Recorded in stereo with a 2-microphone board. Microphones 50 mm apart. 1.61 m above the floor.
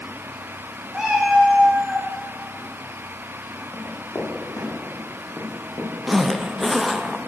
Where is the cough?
I don't hear a cough.